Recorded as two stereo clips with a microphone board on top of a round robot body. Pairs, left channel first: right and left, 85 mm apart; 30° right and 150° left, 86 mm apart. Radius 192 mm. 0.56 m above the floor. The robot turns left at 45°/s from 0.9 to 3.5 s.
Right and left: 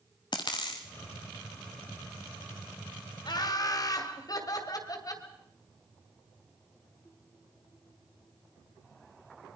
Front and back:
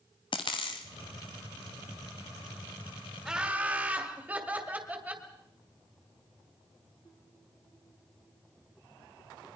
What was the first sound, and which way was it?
A dropped coin, 60° right.